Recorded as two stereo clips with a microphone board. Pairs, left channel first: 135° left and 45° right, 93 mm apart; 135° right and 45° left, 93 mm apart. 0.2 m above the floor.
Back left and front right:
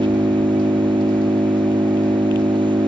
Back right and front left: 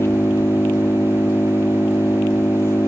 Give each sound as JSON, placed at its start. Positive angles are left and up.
{"t": 0.0, "sound": "an engine running", "azimuth_deg": -70}